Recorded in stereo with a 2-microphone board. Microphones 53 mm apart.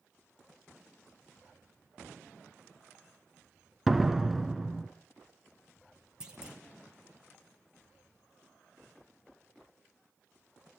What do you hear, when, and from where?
3.9 s a door slam: 5° right (ahead or behind), 1.0 m
6.2 s a clunk: 15° right (ahead or behind), 2.5 m